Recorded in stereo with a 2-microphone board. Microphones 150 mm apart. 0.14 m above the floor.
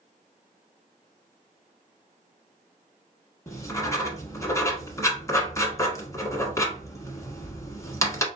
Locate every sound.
3.5 s writing: 20° left (ahead or behind), 1.1 m